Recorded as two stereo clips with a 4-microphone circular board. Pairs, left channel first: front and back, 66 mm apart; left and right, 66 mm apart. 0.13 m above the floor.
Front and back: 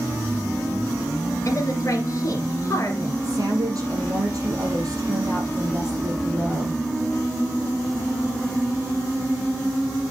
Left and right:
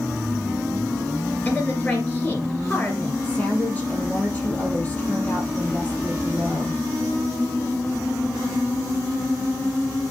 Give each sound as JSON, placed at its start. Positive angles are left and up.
{"t": 1.4, "sound": "a woman speaking", "azimuth_deg": 25, "distance_m": 2.0}
{"t": 3.2, "sound": "a woman speaking", "azimuth_deg": 155, "distance_m": 4.5}